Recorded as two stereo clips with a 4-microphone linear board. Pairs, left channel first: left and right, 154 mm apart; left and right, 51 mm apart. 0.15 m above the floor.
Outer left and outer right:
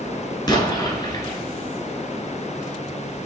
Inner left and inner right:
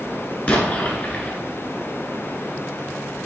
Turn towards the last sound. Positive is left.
turn(degrees=30)  # may be behind; listen again after turning